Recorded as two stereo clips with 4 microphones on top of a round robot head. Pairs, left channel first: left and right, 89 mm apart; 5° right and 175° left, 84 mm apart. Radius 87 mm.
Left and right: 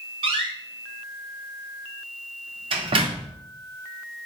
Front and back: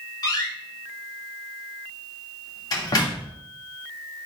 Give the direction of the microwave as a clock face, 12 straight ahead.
I don't hear a microwave.